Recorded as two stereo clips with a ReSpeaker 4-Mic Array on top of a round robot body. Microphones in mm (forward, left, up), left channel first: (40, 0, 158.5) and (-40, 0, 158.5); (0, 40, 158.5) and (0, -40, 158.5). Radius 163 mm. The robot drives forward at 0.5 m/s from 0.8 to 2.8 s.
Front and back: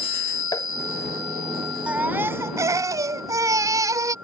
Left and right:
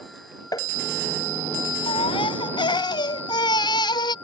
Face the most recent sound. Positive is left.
turn(degrees=125)